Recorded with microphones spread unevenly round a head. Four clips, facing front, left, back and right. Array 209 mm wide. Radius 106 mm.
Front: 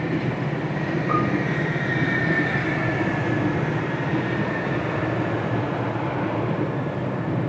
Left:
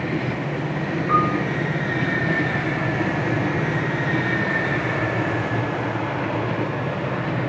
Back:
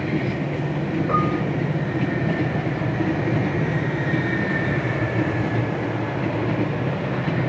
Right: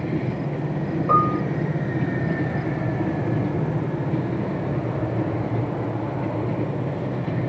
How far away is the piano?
About 1.1 m.